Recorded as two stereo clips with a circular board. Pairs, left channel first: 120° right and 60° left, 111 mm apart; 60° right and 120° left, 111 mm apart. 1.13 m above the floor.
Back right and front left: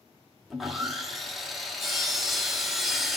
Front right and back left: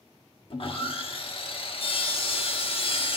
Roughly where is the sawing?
Ahead right.